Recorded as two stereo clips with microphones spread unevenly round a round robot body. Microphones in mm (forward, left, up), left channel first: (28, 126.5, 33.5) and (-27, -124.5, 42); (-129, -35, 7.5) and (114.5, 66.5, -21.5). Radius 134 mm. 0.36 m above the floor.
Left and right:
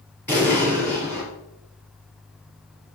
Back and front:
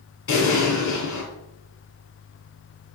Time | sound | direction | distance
0.3 | an explosion | 160° left | 3.5 m